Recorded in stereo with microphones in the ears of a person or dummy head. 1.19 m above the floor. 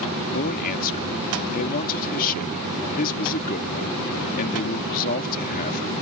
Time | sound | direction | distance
0.3 | a man speaking | 50° left (ahead or behind) | ?